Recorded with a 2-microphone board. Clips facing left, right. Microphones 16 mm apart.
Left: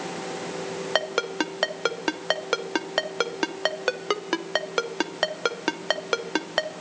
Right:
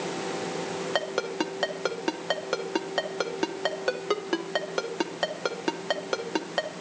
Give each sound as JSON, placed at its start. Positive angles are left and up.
{"t": 0.9, "sound": "a ringtone", "side_deg": 25, "distance_m": 0.9}